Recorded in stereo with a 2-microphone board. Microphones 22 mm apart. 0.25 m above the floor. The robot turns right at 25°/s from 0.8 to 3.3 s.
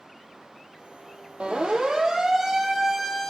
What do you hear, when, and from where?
1.4 s a siren: 50° right (ahead or behind), 6 m; by 3.3 s 5° left (ahead or behind), 5.5 m